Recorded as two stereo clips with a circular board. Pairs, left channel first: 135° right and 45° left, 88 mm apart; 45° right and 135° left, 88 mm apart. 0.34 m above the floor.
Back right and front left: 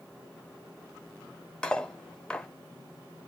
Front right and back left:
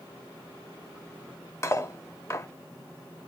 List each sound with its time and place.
1.6 s cutlery clinking: 65° right, 0.5 m